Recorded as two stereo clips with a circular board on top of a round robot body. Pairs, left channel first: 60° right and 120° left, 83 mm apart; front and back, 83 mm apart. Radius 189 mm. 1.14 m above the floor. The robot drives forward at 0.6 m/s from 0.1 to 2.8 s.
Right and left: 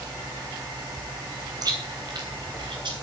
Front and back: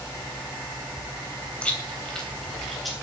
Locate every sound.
1.6 s chewing: 75° left, 3 m; by 2.9 s 90° left, 3 m